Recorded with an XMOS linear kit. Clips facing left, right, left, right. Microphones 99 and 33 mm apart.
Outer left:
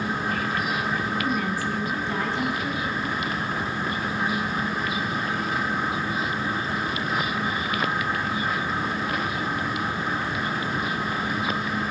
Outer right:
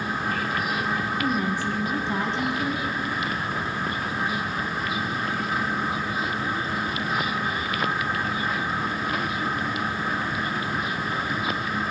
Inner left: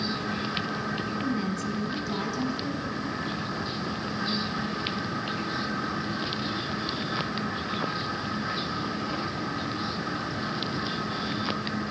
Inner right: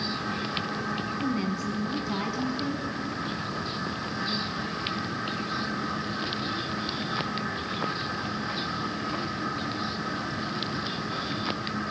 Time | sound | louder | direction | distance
1.2 | a woman speaking | outer right 1 dB, inner right 1 dB | 20° right (ahead or behind) | 1.3 m